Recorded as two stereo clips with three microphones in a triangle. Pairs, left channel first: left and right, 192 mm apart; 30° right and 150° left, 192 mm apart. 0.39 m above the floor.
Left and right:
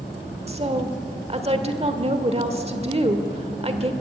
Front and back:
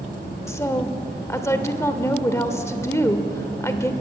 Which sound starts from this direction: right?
A woman speaking, at 0.5 s.